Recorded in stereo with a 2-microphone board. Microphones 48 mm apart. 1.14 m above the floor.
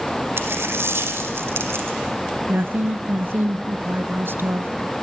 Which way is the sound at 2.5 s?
50° right (ahead or behind).